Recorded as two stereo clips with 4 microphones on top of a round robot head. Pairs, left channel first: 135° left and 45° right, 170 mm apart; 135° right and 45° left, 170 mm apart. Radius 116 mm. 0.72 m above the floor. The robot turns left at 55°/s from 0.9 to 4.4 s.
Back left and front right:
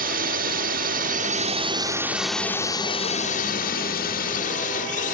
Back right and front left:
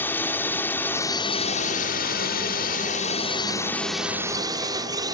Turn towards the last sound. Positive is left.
turn(degrees=110)